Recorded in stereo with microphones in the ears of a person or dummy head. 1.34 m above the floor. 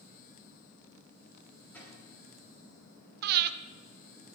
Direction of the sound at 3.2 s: 55° right (ahead or behind).